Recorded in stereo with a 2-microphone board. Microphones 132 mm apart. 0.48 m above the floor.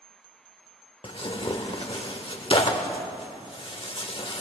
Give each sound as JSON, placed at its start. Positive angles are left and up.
{"t": 1.0, "sound": "tearing paper", "side_deg": 45, "distance_m": 0.9}